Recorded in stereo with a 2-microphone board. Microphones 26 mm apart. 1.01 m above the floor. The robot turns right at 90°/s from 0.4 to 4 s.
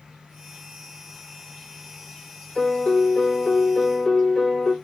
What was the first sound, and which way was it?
An insect, 150° right.